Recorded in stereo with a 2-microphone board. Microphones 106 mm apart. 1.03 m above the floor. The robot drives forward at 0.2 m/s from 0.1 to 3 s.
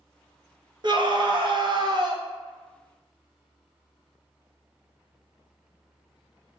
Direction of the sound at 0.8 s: 45° right (ahead or behind).